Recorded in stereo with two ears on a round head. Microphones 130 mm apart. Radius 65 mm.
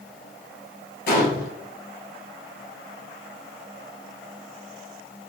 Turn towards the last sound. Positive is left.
turn(degrees=70)  # may be behind; listen again after turning